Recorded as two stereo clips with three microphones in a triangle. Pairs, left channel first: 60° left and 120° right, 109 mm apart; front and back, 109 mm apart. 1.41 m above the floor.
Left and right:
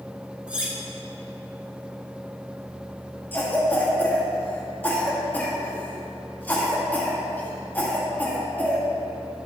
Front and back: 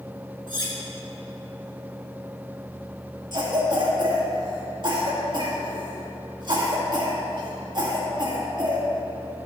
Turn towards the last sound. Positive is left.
turn(degrees=135)